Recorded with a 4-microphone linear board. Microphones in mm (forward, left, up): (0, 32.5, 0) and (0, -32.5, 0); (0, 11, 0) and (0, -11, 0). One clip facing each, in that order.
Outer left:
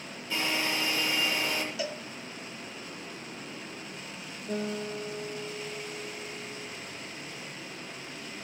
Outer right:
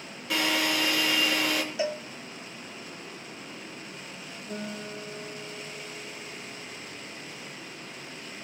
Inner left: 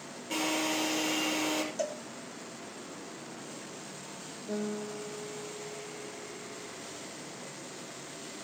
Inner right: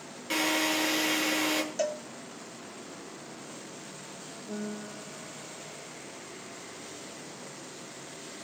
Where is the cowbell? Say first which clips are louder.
Outer right 5 dB, inner right 4 dB; 30° right (ahead or behind), 0.6 m.